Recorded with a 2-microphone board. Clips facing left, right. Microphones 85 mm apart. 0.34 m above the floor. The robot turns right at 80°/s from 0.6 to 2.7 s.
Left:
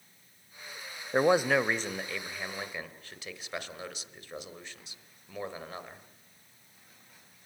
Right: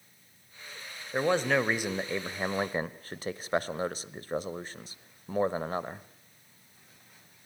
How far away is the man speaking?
About 1.1 m.